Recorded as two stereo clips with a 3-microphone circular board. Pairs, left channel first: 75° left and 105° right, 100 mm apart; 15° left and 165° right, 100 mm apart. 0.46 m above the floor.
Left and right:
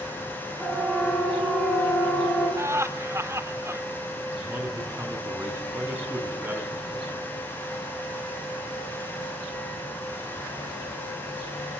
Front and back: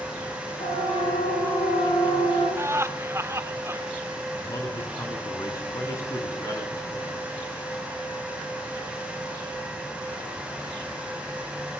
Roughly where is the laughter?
Behind right.